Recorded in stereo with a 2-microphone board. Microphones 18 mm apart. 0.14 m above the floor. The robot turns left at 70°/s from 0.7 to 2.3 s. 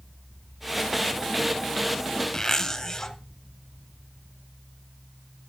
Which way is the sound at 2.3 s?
30° left (ahead or behind).